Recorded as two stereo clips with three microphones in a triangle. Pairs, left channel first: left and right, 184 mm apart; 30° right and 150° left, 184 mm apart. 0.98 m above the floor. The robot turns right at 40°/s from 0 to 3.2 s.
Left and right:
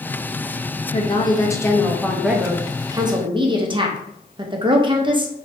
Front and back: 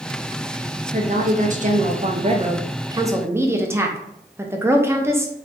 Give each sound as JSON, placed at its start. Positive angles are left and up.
{"t": 0.9, "sound": "a woman speaking", "azimuth_deg": 130, "distance_m": 0.6}